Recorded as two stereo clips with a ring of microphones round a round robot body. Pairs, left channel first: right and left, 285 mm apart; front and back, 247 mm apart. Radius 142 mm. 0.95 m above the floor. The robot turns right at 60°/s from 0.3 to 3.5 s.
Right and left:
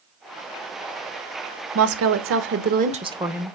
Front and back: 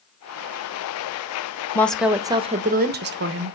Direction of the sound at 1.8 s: 80° left.